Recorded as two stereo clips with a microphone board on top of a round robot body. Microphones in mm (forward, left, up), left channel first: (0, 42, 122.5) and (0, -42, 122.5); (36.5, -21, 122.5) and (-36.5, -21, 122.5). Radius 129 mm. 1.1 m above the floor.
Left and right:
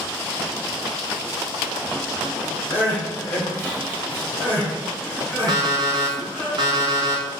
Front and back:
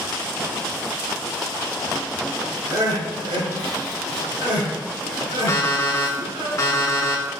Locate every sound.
2.7 s crying: 160° left, 2.5 m
5.5 s an alarm clock: 50° right, 0.9 m